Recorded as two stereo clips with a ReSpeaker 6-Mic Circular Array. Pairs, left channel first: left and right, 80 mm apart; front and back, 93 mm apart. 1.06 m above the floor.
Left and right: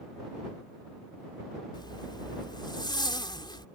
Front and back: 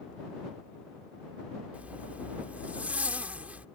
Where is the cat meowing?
No cat meowing in this recording.